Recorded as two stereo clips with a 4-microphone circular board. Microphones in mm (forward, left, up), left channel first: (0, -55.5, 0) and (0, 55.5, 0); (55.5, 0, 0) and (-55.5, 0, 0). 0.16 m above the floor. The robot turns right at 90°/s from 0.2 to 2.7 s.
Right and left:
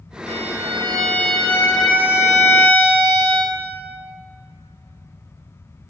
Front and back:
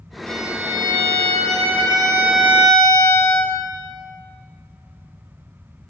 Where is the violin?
80° left, 7.5 m; by 3.6 s 60° right, 7.5 m.